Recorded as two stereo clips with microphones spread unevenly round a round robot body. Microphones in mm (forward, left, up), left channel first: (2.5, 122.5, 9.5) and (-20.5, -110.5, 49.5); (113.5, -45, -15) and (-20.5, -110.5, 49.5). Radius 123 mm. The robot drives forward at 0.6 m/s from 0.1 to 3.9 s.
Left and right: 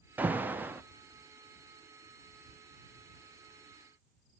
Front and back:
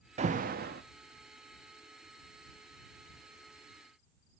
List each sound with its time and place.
0.2 s an alarm: 170° left, 0.6 m; by 0.8 s 175° left, 0.8 m